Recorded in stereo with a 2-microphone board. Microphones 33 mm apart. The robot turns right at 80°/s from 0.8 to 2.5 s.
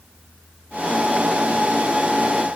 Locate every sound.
Only background noise.